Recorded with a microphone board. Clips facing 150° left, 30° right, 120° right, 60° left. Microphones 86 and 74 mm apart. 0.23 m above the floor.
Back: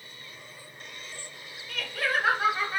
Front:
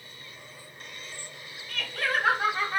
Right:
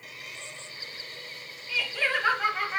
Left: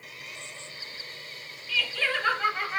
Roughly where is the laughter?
Behind right.